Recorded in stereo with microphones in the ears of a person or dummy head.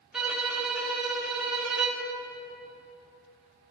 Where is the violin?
5° right (ahead or behind), 1.6 m.